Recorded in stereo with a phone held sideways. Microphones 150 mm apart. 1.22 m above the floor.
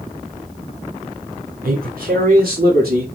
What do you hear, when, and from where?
1.6 s a man speaking: 90° right, 4 m; by 3.1 s 85° right, 3 m